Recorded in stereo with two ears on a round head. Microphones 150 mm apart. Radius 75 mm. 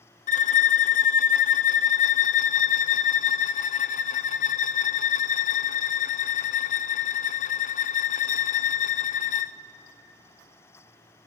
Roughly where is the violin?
Left.